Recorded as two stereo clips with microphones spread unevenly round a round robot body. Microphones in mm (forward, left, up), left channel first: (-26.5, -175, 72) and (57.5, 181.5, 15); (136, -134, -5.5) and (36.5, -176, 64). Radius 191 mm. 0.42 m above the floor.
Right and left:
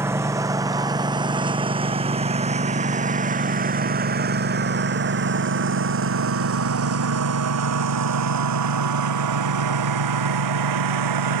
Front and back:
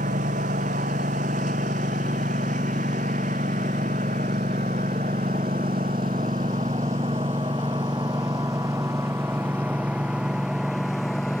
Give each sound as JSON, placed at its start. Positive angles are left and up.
{"t": 0.0, "sound": "a lawn mower", "azimuth_deg": 160}